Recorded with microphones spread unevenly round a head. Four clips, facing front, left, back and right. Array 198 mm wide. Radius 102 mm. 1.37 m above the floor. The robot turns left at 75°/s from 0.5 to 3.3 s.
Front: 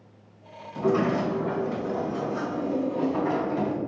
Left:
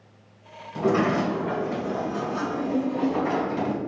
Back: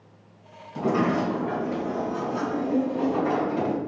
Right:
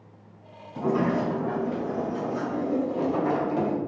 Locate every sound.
0.8 s a sliding door: 100° left, 2.5 m; by 3.8 s 90° right, 2.5 m